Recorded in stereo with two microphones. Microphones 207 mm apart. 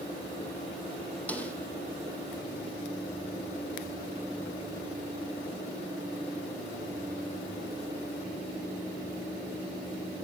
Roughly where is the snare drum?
Centre.